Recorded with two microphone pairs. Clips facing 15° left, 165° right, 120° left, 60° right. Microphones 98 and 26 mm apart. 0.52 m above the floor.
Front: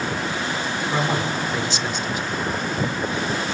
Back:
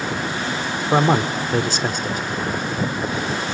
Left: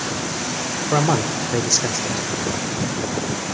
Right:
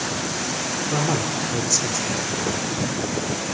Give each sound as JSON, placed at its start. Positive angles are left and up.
{"t": 0.9, "sound": "a man speaking", "azimuth_deg": 165, "distance_m": 1.1}